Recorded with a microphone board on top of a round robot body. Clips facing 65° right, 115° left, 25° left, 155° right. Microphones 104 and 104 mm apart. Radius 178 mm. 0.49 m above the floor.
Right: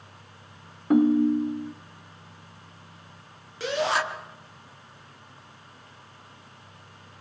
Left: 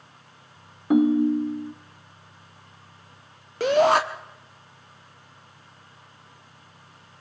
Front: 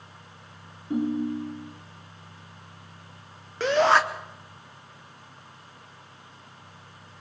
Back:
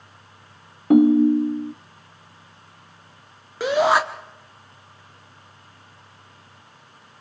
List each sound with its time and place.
0.9 s a ringtone: 165° right, 0.7 m
3.6 s a shout: 125° left, 1.2 m